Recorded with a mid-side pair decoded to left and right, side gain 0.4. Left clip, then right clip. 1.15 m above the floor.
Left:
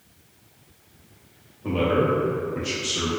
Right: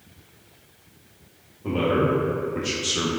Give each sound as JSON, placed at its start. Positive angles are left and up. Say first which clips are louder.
{"t": 1.6, "sound": "a man speaking", "louder": "even", "azimuth_deg": 10, "distance_m": 1.1}